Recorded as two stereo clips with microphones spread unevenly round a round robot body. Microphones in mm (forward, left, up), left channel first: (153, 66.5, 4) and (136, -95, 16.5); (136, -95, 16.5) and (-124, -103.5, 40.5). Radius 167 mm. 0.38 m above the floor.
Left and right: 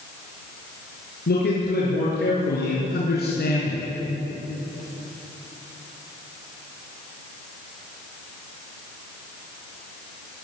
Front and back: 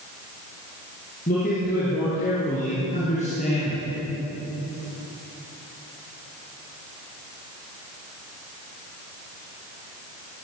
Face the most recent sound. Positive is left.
turn(degrees=70)